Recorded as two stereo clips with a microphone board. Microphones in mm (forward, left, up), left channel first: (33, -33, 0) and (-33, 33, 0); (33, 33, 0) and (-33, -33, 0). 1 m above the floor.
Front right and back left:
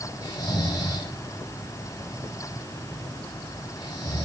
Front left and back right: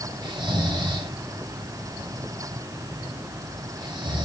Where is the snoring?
95° right, 7.5 m.